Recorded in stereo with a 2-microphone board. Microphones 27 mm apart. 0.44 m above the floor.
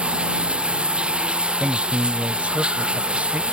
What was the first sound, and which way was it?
Running water, 40° right (ahead or behind).